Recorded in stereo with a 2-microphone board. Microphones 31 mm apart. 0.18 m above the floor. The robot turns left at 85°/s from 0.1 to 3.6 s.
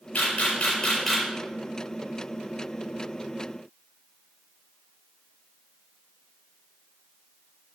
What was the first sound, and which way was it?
A camera shutter, 70° left (ahead or behind).